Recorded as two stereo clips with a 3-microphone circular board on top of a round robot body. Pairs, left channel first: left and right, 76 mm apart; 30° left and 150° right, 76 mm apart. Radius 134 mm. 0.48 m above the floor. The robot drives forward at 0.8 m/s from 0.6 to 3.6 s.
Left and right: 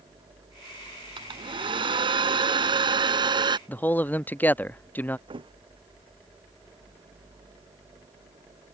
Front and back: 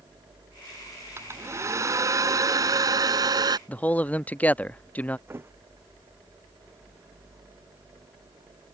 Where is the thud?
90° right.